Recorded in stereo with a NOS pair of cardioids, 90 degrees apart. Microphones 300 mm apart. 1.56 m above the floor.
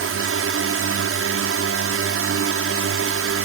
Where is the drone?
50° right.